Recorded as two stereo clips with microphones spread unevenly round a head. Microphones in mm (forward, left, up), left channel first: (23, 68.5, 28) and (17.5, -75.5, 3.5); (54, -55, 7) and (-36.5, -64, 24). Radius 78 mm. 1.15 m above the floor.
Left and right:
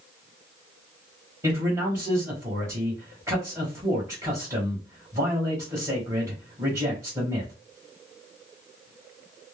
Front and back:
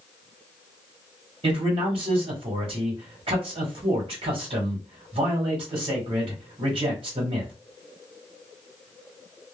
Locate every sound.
1.4 s a man speaking: 160° right, 1.2 m